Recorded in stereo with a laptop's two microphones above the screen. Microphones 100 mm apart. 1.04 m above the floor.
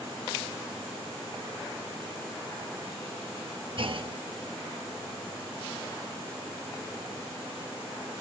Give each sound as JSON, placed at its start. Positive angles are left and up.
{"t": 3.8, "sound": "a clunk", "side_deg": -60, "distance_m": 1.0}